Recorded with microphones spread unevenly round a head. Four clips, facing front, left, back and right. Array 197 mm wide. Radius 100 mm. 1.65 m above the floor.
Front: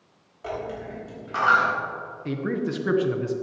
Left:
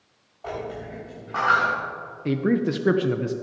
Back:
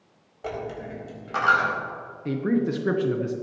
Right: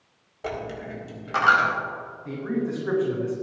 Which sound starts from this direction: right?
A dropped coin, at 0.4 s.